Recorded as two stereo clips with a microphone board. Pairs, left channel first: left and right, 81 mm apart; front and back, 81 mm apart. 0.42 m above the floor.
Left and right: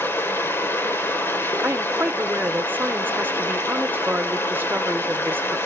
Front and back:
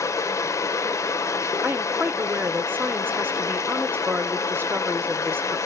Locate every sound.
0.0 s running water: 35° left, 1.6 m
1.6 s a woman speaking: 135° right, 0.9 m